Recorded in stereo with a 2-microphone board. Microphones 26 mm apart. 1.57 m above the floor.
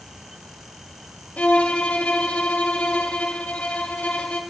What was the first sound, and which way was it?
A violin, 70° left (ahead or behind).